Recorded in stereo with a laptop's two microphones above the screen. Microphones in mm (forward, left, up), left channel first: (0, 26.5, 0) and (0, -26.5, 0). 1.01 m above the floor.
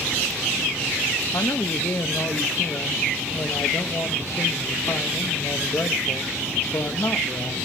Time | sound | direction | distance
1.3 | a man speaking | 70° left (ahead or behind) | 0.8 m